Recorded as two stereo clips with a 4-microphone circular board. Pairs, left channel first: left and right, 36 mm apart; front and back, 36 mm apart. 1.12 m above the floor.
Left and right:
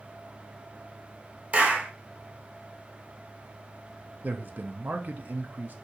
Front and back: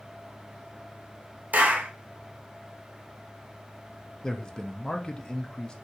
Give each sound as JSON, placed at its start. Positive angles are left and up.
{"t": 1.5, "sound": "a clap", "azimuth_deg": -140, "distance_m": 0.7}
{"t": 4.2, "sound": "a man speaking", "azimuth_deg": -70, "distance_m": 0.6}